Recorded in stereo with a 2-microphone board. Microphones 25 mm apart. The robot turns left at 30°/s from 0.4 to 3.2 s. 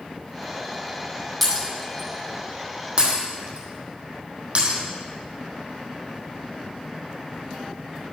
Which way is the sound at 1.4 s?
5° left (ahead or behind).